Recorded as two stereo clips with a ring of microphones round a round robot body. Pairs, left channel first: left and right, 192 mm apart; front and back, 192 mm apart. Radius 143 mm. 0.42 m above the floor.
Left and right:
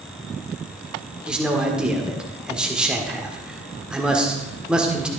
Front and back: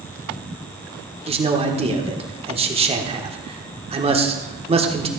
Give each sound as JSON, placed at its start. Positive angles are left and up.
{"t": 1.3, "sound": "a man speaking", "azimuth_deg": -170, "distance_m": 1.3}